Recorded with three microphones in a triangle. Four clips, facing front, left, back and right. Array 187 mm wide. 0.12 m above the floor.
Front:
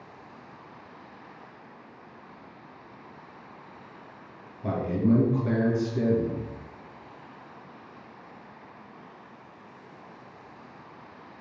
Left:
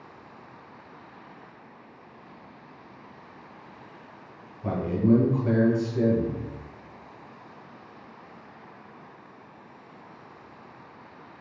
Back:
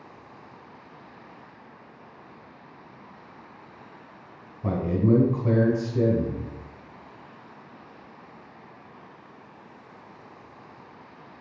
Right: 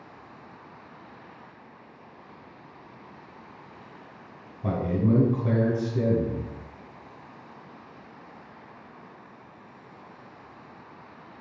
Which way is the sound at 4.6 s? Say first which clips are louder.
Left 2 dB, back 1 dB; 140° right.